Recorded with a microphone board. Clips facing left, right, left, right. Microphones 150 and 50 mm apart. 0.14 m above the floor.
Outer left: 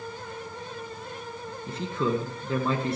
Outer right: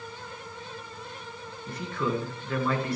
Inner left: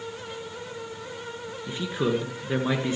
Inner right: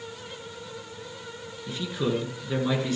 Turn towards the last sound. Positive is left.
turn(degrees=25)  # may be behind; listen again after turning